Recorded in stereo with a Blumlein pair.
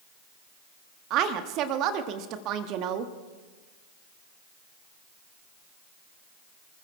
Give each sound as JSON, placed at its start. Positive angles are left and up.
{"t": 1.1, "sound": "a woman speaking", "azimuth_deg": -35, "distance_m": 1.2}